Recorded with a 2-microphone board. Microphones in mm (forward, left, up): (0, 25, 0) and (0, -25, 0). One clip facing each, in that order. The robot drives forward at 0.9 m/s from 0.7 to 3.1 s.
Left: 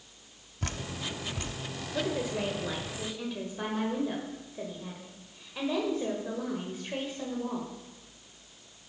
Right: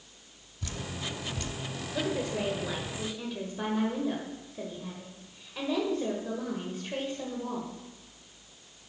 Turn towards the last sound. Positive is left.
turn(degrees=5)  # may be behind; listen again after turning